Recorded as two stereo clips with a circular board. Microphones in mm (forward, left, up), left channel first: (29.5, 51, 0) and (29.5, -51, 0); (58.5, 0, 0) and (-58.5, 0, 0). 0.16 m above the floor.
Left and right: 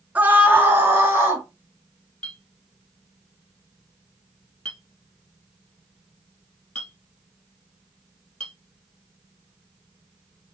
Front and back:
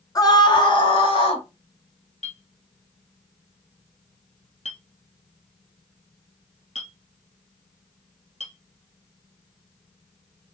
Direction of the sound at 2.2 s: 10° left.